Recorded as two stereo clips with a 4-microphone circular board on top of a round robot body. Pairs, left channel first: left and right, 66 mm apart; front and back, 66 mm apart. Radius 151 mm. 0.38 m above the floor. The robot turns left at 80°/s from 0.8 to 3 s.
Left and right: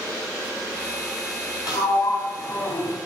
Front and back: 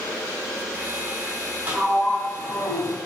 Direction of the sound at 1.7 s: 115° left.